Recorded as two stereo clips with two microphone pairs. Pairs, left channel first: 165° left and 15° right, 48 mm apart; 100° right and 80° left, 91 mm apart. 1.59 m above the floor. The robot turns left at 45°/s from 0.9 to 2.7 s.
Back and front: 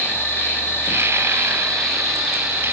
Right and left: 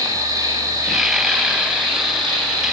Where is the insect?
130° left, 2.5 m; by 2.7 s 50° left, 2.5 m.